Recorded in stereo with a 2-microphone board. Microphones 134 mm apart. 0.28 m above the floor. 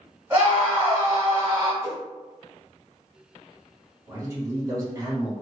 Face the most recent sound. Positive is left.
turn(degrees=-25)  # may be behind; listen again after turning